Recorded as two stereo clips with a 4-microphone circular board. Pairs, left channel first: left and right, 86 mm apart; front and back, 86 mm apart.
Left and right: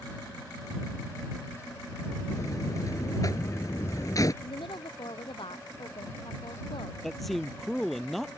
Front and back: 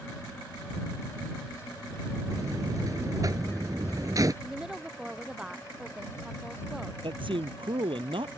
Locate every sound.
2.3 s a buzzer: 135° left
4.4 s a woman speaking: 100° left
7.0 s a man speaking: straight behind